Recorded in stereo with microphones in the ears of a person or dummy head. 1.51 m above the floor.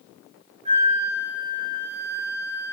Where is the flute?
30° right (ahead or behind), 0.6 m.